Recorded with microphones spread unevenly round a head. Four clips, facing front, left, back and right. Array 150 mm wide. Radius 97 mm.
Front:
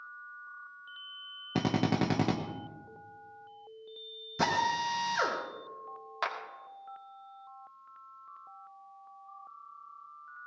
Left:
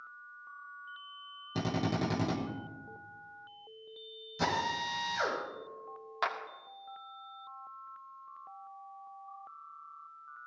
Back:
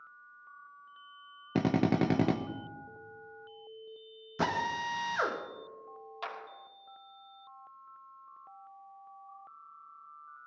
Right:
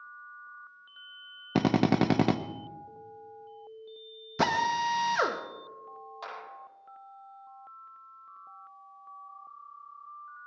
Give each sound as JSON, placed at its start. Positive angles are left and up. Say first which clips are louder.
{"t": 1.6, "sound": "a drill", "louder": "right 9 dB, back 2 dB", "azimuth_deg": -105, "distance_m": 0.7}
{"t": 4.4, "sound": "a drill", "louder": "right 6 dB, front 3 dB", "azimuth_deg": -95, "distance_m": 1.4}
{"t": 6.2, "sound": "a clap", "louder": "left 8 dB, front 6 dB", "azimuth_deg": 40, "distance_m": 2.5}